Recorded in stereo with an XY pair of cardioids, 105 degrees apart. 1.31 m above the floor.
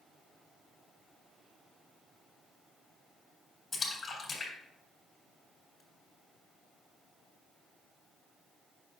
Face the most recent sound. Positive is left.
turn(degrees=25)